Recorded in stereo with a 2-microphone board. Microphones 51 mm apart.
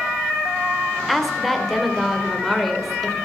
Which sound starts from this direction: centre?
A woman speaking, at 1.1 s.